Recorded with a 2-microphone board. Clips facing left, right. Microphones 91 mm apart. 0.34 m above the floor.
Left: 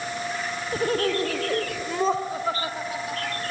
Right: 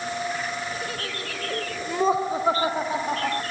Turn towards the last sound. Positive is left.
turn(degrees=-50)  # may be behind; listen again after turning